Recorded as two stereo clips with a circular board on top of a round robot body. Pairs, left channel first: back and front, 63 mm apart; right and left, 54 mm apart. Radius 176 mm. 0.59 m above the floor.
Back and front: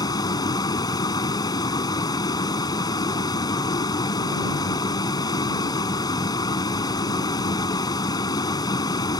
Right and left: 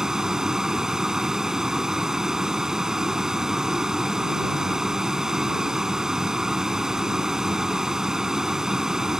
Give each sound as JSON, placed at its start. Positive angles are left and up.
{"t": 0.0, "sound": "a vehicle", "azimuth_deg": 170}